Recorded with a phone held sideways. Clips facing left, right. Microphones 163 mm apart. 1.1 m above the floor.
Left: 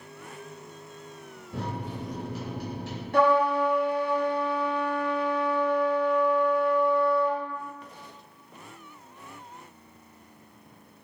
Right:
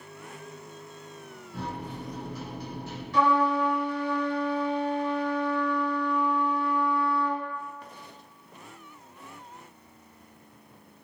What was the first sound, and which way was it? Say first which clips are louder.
A microwave: left 2 dB; 80° left.